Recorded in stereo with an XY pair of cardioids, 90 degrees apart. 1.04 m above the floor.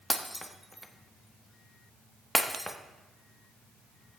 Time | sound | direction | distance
0.1 | breaking glass | 5° left | 1.0 m